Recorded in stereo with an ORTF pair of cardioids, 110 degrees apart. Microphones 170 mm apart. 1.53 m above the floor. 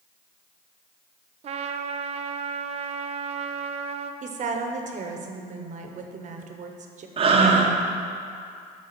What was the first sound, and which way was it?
A trumpet, 40° right.